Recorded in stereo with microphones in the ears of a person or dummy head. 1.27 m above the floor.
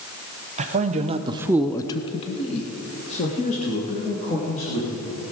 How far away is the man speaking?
About 1.0 m.